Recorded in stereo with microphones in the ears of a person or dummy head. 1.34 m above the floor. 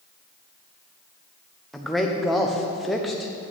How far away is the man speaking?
About 0.7 m.